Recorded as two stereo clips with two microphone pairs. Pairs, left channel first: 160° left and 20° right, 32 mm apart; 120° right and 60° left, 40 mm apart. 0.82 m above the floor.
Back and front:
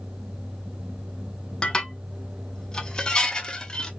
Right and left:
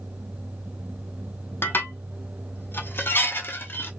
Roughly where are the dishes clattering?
Behind right.